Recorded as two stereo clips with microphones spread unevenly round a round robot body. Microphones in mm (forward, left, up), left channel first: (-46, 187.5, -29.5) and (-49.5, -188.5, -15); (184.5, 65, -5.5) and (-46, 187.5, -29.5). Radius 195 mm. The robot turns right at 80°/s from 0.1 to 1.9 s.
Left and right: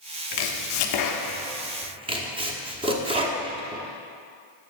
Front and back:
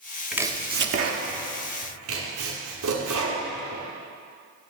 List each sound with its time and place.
0.3 s chopping: 65° left, 0.8 m; by 3.8 s 170° right, 0.8 m